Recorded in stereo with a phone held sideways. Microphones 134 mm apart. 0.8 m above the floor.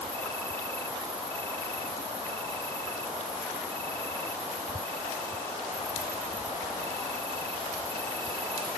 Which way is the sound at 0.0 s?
15° left (ahead or behind).